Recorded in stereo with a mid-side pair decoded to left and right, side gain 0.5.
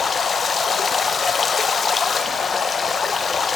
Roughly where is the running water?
Ahead left.